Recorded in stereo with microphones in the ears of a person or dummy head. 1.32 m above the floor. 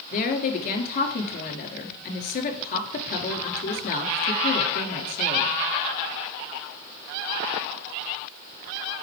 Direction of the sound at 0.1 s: 50° left (ahead or behind).